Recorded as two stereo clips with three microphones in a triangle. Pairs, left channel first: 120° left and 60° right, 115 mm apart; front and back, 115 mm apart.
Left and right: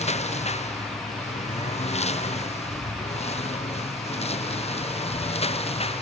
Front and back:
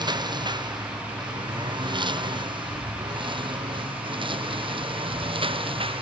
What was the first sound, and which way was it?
A lawn mower, 130° left.